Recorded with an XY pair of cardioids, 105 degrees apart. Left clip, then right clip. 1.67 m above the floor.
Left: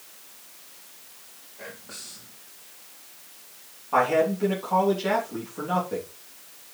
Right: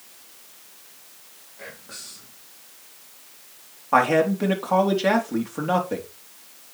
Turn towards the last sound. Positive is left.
turn(degrees=-55)